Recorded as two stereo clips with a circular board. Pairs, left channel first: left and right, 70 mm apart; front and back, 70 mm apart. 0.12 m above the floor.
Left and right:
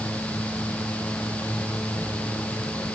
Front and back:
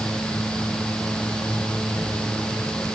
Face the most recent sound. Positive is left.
No sound to turn to.